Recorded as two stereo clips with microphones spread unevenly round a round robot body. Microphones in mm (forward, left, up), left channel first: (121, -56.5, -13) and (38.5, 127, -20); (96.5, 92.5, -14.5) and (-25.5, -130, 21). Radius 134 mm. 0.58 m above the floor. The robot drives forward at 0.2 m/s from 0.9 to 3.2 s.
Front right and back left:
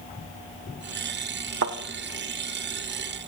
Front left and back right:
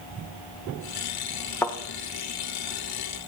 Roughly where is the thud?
Behind left.